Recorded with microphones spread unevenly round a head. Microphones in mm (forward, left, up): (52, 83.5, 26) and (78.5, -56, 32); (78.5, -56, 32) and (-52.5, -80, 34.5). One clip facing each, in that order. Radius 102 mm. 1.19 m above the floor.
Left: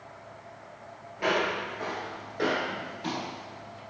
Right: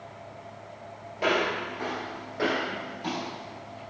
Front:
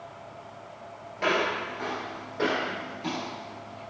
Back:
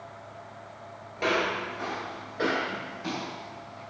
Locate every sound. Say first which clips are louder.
1.2 s footsteps: right 1 dB, front 1 dB; 120° right, 1.3 m; by 3.8 s 25° left, 1.4 m